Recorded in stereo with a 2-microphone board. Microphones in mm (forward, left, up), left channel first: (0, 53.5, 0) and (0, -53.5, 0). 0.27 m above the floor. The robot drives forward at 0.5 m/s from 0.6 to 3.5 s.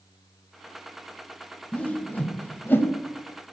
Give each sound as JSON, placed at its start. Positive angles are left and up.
{"t": 1.7, "sound": "a whoosh", "side_deg": 10, "distance_m": 1.0}